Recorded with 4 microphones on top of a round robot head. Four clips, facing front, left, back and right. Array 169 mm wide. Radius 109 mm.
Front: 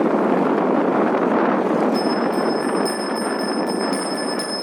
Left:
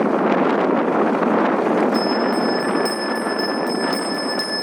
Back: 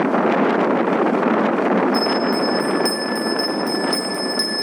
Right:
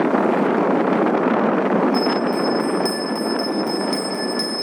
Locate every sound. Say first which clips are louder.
1.9 s a bell: even, back 1 dB; 135° left, 6.5 m